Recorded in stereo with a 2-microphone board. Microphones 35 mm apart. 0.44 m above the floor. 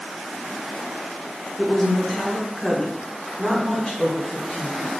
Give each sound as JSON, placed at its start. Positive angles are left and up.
{"t": 1.6, "sound": "a woman speaking", "side_deg": -5, "distance_m": 0.9}